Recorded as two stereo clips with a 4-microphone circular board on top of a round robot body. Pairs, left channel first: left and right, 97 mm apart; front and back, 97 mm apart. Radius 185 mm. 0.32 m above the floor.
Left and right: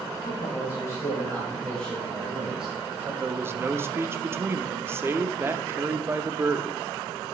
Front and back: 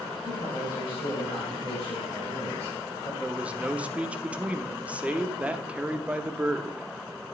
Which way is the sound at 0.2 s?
50° left.